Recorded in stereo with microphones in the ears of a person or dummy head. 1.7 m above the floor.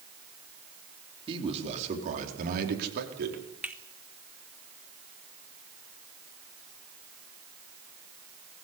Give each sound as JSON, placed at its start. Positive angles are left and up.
{"t": 1.3, "sound": "a man speaking", "side_deg": -30, "distance_m": 4.5}
{"t": 3.6, "sound": "a finger snap", "side_deg": -5, "distance_m": 1.6}